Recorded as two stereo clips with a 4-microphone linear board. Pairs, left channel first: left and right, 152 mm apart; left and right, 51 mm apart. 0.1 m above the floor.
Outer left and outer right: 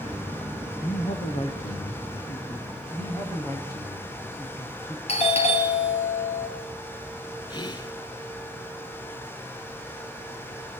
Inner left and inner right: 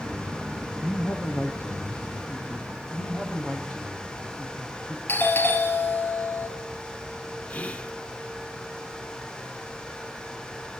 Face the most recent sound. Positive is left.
turn(degrees=30)  # may be behind; listen again after turning